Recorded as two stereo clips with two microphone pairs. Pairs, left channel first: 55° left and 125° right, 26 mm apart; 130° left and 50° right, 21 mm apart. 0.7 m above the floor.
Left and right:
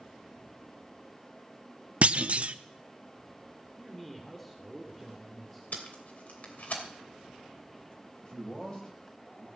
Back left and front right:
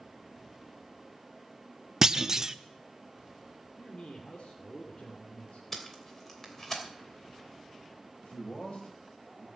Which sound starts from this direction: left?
A man speaking, at 8.2 s.